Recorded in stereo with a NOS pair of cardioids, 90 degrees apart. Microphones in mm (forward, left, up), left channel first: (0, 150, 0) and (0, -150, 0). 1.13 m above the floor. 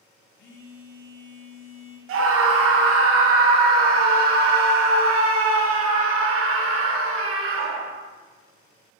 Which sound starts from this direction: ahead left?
A phone buzzing, at 0.4 s.